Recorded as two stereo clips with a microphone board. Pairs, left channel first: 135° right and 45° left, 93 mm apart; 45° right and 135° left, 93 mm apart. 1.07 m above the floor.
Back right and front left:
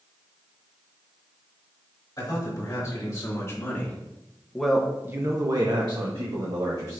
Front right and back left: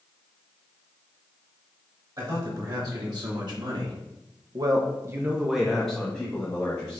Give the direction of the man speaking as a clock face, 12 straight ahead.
6 o'clock.